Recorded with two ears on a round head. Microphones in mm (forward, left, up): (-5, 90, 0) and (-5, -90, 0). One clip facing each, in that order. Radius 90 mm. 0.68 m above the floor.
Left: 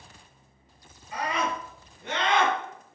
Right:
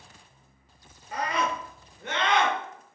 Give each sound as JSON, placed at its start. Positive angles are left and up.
{"t": 1.1, "sound": "a scream", "side_deg": -50, "distance_m": 2.5}